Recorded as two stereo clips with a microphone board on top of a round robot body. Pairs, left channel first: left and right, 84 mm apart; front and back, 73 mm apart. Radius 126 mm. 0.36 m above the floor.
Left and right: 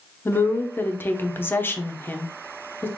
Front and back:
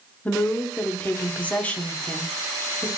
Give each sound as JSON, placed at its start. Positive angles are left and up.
{"t": 0.2, "sound": "a woman speaking", "azimuth_deg": 50, "distance_m": 0.9}